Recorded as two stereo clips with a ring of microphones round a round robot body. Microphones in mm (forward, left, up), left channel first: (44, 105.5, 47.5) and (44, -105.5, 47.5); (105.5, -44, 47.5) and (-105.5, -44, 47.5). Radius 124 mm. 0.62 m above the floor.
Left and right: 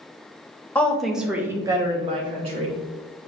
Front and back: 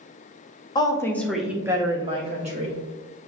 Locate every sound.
0.8 s a woman speaking: 20° left, 0.8 m; by 2.8 s 140° right, 1.1 m